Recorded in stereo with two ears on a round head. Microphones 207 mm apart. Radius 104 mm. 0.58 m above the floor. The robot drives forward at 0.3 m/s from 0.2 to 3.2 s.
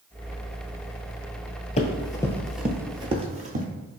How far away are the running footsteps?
About 0.7 m.